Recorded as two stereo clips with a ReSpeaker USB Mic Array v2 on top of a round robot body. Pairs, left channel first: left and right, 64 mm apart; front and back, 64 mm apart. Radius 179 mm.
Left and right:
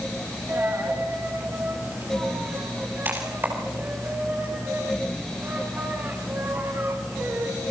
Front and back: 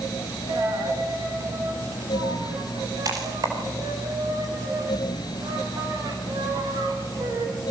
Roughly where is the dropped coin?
Behind right.